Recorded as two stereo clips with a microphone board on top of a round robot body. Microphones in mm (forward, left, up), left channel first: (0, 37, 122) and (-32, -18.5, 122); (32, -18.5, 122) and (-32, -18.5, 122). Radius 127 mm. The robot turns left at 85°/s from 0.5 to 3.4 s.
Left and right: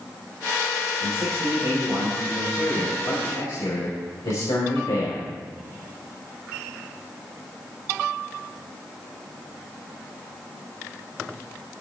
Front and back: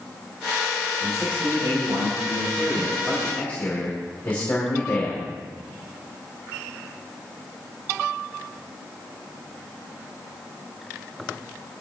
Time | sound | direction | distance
1.0 | a man speaking | 95° right | 5 m